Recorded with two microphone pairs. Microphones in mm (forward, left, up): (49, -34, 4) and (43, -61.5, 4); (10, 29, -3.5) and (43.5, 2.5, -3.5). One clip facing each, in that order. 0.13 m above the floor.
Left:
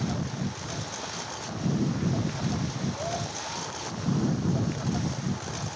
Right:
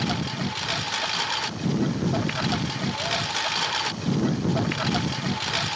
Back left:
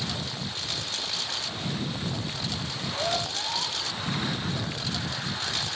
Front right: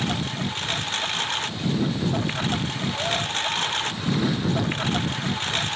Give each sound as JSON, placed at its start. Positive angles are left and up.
{"t": 0.0, "sound": "a lawn mower", "azimuth_deg": -80}